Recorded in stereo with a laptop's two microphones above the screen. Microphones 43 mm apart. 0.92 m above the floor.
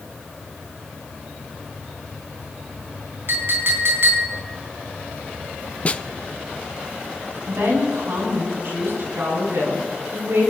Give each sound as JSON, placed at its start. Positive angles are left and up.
{"t": 3.3, "sound": "a clink", "side_deg": -55, "distance_m": 4.0}
{"t": 5.8, "sound": "a snare drum", "side_deg": 30, "distance_m": 0.8}
{"t": 7.5, "sound": "a woman speaking", "side_deg": -60, "distance_m": 7.5}